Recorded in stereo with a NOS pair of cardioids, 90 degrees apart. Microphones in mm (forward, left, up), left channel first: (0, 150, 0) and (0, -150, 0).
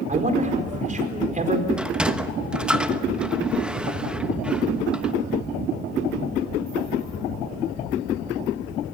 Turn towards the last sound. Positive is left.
turn(degrees=-5)